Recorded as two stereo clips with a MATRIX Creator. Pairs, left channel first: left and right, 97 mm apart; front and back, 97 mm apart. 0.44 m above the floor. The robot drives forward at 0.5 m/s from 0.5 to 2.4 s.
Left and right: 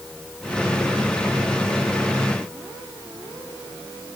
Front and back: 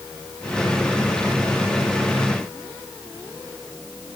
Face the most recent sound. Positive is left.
No sound to turn to.